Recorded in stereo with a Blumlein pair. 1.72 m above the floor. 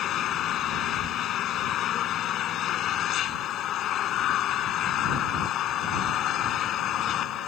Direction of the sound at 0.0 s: 30° left.